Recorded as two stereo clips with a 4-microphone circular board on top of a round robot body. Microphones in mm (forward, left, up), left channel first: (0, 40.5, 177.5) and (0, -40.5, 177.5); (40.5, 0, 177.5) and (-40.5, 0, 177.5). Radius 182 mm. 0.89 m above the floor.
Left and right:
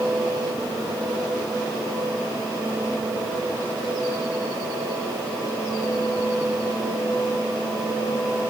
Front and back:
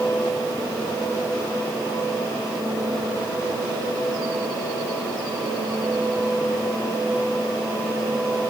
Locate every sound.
Only background noise.